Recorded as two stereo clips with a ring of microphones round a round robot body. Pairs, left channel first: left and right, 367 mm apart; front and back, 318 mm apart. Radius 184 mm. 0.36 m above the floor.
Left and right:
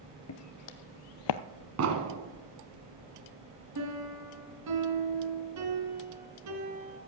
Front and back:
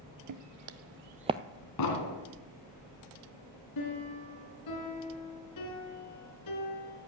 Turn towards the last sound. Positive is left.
turn(degrees=-45)